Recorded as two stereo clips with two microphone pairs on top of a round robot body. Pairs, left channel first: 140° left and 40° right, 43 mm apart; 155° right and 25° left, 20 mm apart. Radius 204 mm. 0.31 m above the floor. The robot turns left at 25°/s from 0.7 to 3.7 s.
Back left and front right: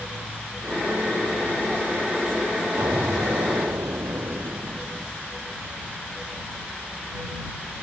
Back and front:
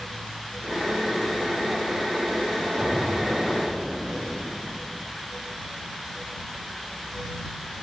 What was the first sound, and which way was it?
An explosion, 40° right.